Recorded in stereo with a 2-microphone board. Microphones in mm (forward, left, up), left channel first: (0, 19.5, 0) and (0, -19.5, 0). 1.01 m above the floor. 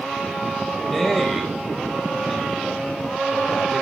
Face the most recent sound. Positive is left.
turn(degrees=5)  # may be behind; listen again after turning